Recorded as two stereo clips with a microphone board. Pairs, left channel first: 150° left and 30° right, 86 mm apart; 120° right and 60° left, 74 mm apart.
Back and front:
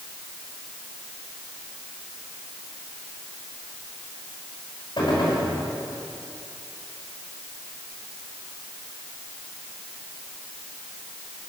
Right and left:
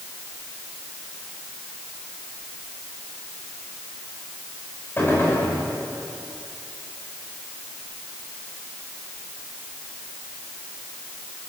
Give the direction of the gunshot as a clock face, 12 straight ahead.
6 o'clock.